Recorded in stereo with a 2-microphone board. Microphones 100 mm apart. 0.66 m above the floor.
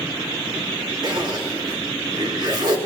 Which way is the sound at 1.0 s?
55° right (ahead or behind).